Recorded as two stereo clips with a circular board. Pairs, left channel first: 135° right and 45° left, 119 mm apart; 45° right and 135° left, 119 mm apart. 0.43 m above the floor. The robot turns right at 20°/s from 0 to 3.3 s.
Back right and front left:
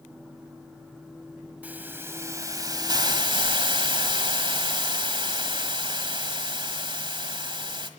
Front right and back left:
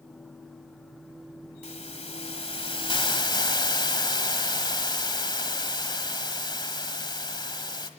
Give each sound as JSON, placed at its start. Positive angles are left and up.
{"t": 1.6, "sound": "a hiss", "azimuth_deg": -30, "distance_m": 1.5}